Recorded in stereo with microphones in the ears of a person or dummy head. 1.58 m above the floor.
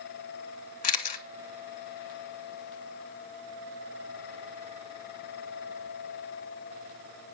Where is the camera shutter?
50° left (ahead or behind), 1.2 m.